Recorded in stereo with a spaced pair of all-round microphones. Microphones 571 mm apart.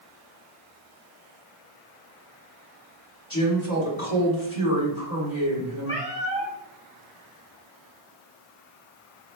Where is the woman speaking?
55° left (ahead or behind), 2.5 m.